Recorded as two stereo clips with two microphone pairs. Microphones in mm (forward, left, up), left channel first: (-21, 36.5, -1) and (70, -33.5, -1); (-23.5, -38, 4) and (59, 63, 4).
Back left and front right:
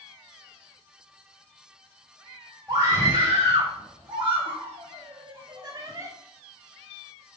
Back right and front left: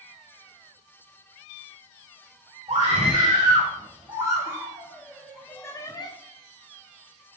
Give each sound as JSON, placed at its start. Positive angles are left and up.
{"t": 2.7, "sound": "a scream", "azimuth_deg": 10, "distance_m": 3.5}